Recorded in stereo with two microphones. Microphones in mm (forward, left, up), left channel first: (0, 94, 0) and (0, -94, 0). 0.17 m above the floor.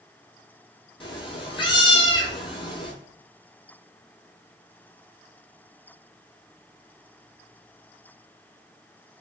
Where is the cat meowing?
25° left (ahead or behind), 0.7 m.